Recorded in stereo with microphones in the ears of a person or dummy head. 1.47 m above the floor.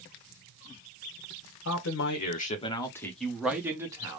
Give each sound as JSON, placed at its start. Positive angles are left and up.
{"t": 1.6, "sound": "a man speaking", "side_deg": 80, "distance_m": 0.8}